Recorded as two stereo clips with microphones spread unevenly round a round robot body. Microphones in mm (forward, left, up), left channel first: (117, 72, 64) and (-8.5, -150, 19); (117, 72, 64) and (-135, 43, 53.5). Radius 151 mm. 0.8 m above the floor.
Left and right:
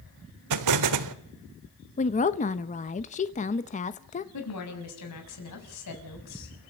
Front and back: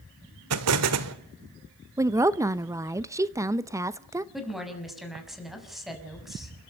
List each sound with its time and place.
0.5 s an explosion: 135° right, 1.4 m
2.0 s a woman speaking: 120° left, 0.8 m
4.3 s a woman speaking: 100° left, 6 m